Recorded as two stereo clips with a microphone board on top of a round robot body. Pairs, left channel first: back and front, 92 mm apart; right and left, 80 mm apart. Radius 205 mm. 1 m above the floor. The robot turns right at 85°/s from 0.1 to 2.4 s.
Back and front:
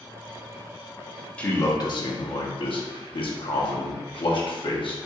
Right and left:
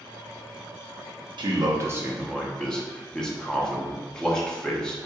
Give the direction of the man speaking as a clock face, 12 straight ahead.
9 o'clock.